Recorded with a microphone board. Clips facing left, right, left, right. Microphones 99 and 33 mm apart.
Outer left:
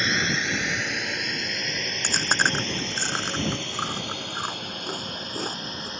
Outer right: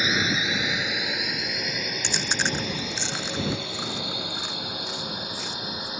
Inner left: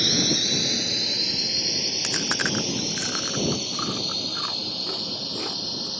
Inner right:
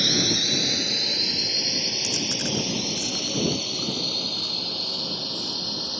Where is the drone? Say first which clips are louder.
Outer right 1 dB, inner right 1 dB; 5° right (ahead or behind); by 6.0 s 10° right (ahead or behind).